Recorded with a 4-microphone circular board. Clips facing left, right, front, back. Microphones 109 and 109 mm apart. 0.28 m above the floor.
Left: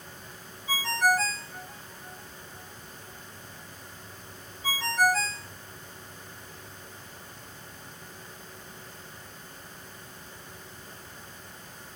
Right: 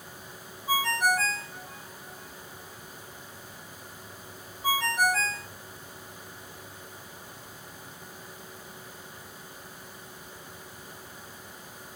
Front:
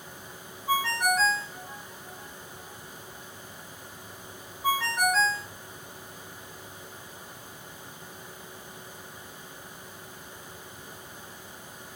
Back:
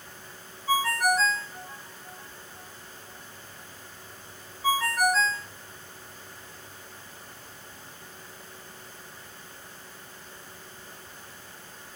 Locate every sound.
0.7 s a ringtone: 95° right, 1.7 m